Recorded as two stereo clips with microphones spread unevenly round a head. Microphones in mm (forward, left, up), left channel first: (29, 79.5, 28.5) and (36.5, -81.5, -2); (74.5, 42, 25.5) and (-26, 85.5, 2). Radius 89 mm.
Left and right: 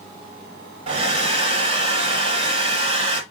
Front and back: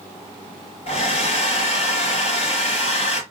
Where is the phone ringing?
No phone ringing in this recording.